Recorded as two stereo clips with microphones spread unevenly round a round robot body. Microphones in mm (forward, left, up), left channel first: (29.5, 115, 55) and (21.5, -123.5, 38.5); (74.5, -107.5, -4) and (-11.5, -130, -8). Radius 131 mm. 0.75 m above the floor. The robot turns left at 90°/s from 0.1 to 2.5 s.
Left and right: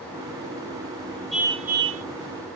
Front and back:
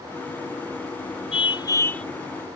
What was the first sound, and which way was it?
A car horn, straight ahead.